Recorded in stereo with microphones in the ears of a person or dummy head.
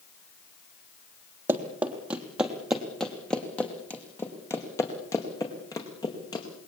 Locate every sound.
1.5 s running footsteps: 10° right (ahead or behind), 3 m; by 6.5 s 20° left (ahead or behind), 5 m